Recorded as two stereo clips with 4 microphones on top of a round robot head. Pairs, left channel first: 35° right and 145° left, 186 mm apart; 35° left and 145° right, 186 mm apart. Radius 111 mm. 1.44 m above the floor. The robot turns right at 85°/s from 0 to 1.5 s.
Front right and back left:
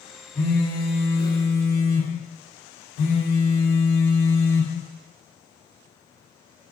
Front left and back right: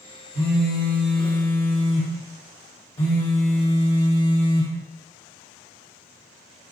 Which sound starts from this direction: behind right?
A phone buzzing, at 0.3 s.